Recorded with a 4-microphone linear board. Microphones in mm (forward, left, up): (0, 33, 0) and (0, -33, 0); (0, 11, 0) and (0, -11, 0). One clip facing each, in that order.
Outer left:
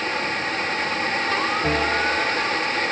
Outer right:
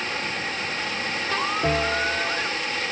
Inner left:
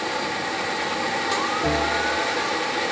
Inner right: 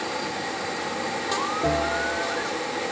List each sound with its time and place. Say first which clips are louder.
1.6 s a bell: outer left 2 dB, inner left 1 dB; 25° right (ahead or behind), 2 m